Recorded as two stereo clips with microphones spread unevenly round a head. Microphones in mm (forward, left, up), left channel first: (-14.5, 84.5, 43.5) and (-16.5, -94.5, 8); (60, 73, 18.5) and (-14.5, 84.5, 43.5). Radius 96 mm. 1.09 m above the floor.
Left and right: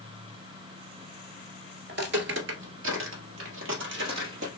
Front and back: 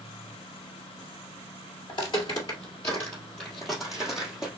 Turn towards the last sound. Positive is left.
turn(degrees=-115)